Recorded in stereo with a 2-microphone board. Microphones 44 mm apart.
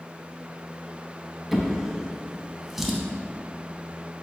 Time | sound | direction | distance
1.5 | a drawer | 5° right (ahead or behind) | 0.5 m